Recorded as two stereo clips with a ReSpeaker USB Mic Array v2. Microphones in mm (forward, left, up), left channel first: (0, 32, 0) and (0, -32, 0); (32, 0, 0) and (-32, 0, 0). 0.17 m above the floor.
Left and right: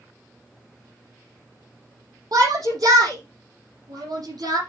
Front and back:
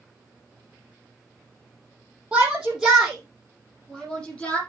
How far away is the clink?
No clink in this recording.